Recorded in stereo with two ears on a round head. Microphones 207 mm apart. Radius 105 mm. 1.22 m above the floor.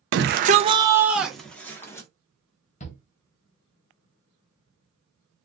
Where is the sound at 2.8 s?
30° left (ahead or behind), 0.7 m.